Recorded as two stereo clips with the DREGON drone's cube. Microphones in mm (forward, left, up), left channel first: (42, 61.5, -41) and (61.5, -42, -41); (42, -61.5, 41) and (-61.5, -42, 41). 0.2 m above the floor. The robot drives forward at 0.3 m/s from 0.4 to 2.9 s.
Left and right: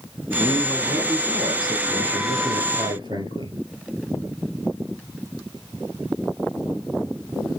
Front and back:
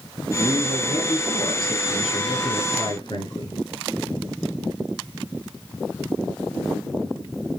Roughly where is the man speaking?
Ahead right.